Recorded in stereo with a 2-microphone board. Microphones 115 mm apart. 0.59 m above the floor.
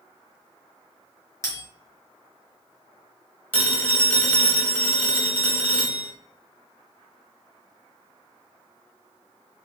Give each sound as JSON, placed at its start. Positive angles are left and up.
{"t": 1.4, "sound": "a bell", "side_deg": 30, "distance_m": 1.8}
{"t": 3.5, "sound": "a phone ringing", "side_deg": 15, "distance_m": 1.2}